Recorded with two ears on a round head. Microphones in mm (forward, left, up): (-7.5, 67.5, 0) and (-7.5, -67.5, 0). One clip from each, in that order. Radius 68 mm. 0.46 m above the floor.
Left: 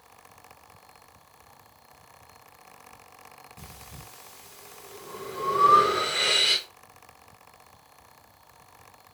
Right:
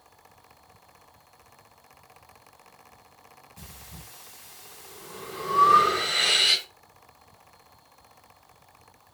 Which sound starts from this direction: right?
Breathing, at 3.6 s.